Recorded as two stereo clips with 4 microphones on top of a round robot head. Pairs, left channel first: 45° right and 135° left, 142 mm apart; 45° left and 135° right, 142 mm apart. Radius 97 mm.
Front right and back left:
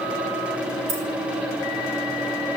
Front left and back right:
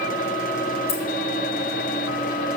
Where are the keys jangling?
95° left, 2.5 m.